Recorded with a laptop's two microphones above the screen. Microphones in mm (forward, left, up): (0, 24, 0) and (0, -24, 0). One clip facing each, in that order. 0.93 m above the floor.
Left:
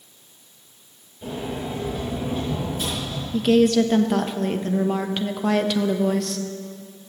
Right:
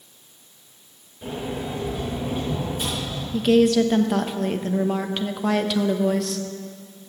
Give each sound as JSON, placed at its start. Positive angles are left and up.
{"t": 1.2, "sound": "a sliding door", "side_deg": -15, "distance_m": 5.0}
{"t": 3.3, "sound": "a woman speaking", "side_deg": 0, "distance_m": 1.0}